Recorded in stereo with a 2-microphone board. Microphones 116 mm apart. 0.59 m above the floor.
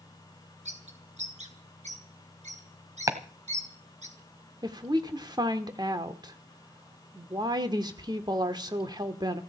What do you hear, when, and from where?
0.7 s a bird: 75° right (ahead or behind), 3 m
3.1 s chopping: 25° right (ahead or behind), 1.5 m
4.6 s a woman speaking: 35° right (ahead or behind), 1.6 m